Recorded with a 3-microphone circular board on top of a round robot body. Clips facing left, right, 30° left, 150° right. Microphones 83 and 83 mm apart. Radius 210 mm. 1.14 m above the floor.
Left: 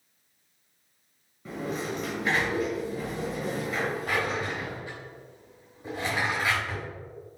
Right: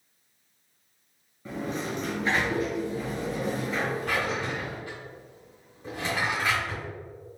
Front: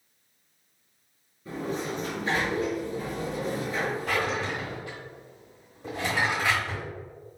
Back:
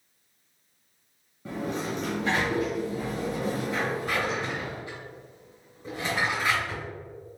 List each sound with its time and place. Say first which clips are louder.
1.4 s a sliding door: even, back 1 dB; straight behind, 1.0 m
4.1 s a drawer: even, front 1 dB; 20° left, 1.5 m